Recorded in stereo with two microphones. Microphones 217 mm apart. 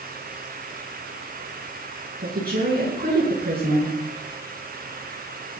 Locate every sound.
2.2 s a woman speaking: 45° right (ahead or behind), 7.5 m